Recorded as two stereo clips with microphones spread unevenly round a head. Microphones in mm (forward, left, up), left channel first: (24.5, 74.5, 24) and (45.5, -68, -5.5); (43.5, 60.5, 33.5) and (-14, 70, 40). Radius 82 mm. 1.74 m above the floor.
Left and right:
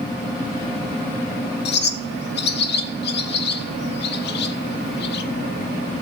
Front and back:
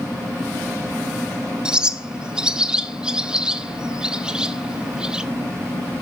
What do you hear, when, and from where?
1.6 s a bird: 95° left, 0.9 m